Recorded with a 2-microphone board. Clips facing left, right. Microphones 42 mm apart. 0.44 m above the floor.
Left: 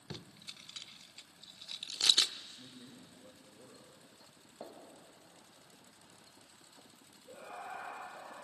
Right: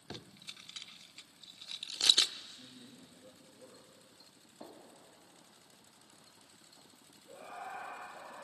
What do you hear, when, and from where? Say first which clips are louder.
0.1 s tape being pulled: right 1 dB; 10° right (ahead or behind), 0.6 m
2.4 s a man speaking: even; 80° left, 8.5 m
4.6 s a gunshot: left 2 dB; 40° left (ahead or behind), 2.5 m
7.3 s laughter: even; 60° left (ahead or behind), 10 m